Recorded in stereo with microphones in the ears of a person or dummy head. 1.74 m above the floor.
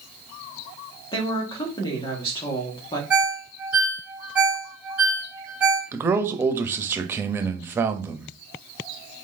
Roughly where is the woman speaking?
Left.